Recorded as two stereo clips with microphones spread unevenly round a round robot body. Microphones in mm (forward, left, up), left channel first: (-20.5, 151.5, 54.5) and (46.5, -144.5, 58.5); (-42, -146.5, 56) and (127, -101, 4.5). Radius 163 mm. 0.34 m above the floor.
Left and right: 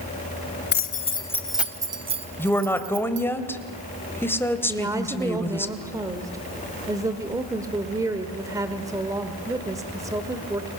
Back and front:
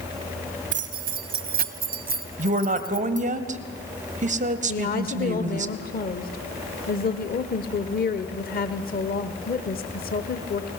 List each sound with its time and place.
0.7 s keys jangling: 50° left, 1.3 m; by 3.2 s 25° right, 2.5 m
2.4 s a woman speaking: 20° left, 1.8 m
4.7 s a woman speaking: 150° right, 1.3 m